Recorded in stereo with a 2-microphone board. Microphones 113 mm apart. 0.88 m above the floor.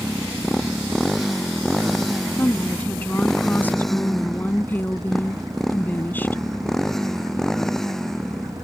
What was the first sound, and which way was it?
A motorcycle, centre (ahead or behind).